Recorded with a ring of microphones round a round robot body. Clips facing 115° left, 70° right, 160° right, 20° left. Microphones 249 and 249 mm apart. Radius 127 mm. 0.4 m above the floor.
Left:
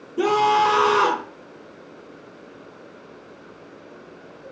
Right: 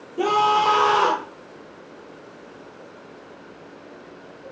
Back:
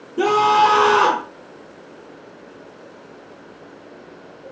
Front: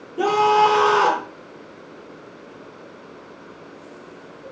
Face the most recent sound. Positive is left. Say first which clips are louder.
# left 2 dB, back 1 dB
turn(degrees=165)